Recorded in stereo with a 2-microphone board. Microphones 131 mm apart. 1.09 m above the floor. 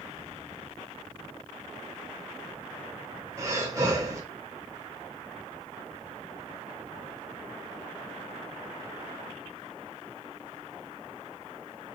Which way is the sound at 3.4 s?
20° right (ahead or behind).